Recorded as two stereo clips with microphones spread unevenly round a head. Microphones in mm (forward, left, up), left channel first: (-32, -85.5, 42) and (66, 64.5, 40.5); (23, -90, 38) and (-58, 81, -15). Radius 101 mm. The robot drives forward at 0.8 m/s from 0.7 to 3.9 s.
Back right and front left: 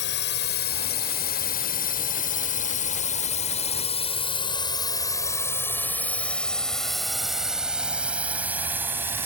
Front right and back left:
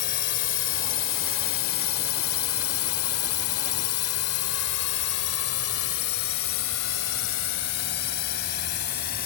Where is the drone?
100° right; by 9.3 s 20° right.